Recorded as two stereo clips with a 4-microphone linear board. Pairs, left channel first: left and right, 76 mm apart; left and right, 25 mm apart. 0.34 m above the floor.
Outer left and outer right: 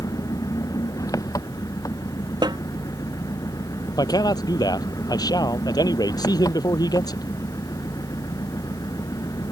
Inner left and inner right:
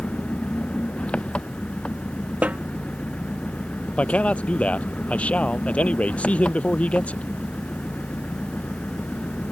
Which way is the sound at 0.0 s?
50° left (ahead or behind).